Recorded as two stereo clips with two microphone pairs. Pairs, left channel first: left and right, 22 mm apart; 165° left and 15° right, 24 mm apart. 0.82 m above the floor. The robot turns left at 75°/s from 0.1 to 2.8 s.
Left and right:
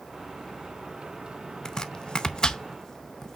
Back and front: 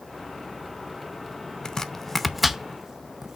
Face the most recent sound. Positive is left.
turn(degrees=35)